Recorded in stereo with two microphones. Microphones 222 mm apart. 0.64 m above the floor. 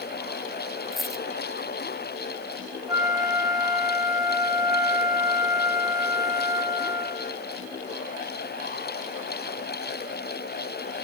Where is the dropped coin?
Centre (ahead or behind), 0.9 m.